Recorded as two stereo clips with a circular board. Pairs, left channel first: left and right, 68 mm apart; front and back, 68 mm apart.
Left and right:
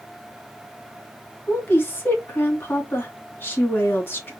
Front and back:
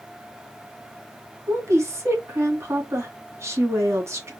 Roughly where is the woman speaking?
Behind left.